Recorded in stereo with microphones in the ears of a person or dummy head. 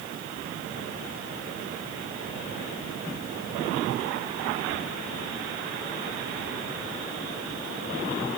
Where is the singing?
No singing in this recording.